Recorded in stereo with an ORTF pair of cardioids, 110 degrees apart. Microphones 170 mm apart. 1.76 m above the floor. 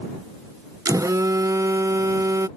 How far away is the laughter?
No laughter in this recording.